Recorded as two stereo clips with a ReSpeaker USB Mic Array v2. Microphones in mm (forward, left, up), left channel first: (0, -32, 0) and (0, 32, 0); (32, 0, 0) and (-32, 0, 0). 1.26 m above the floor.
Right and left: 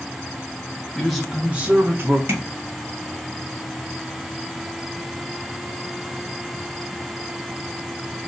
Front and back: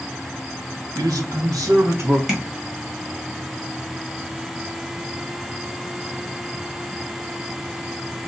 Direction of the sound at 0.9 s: 175° right.